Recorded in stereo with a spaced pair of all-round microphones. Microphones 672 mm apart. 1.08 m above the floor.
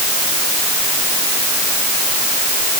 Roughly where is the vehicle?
I don't hear a vehicle.